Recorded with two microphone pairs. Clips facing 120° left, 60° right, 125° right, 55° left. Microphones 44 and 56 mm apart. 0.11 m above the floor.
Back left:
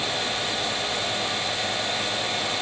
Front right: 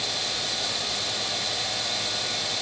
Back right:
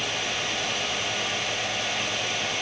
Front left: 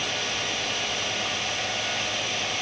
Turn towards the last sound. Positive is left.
No sound to turn to.